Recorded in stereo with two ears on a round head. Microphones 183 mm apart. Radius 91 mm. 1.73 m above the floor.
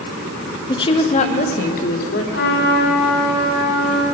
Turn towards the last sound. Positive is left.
turn(degrees=55)  # may be behind; listen again after turning